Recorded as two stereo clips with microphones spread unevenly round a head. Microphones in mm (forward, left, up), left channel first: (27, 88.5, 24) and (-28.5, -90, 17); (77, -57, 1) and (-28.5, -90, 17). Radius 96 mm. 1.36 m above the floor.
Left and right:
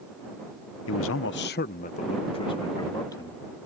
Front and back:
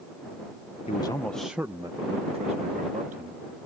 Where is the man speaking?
70° left; by 3.7 s 150° left.